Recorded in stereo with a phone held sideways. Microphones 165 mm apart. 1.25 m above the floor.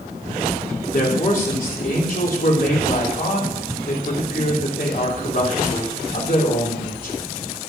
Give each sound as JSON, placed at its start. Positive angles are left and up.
{"t": 0.9, "sound": "a man speaking", "side_deg": 60, "distance_m": 3.0}